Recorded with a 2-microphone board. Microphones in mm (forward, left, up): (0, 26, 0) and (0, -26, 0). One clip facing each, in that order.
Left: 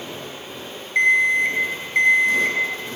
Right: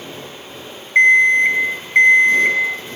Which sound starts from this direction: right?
An alarm clock, at 0.9 s.